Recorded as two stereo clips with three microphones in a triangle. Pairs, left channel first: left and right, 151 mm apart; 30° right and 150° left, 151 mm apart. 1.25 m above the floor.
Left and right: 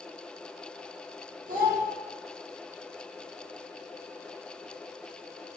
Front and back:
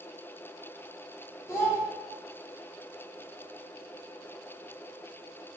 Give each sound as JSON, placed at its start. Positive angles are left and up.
{"t": 1.5, "sound": "a child speaking", "azimuth_deg": -100, "distance_m": 0.8}